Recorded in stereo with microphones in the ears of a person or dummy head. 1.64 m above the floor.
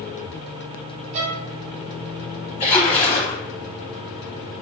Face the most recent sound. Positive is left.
turn(degrees=30)  # may be behind; listen again after turning